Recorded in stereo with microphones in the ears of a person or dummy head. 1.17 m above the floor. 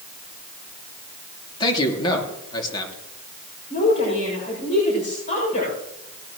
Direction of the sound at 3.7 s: 45° left (ahead or behind).